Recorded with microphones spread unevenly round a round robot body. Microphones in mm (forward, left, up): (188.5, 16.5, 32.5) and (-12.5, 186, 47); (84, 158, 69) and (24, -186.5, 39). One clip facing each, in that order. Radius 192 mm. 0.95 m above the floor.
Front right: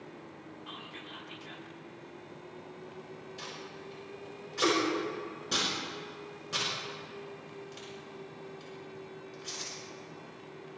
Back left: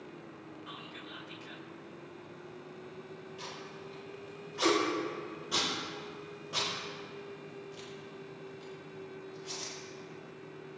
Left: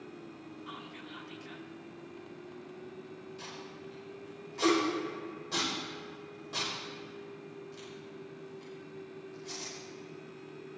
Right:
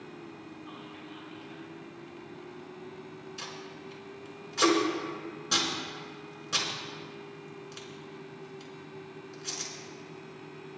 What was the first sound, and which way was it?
Whispering, 55° left.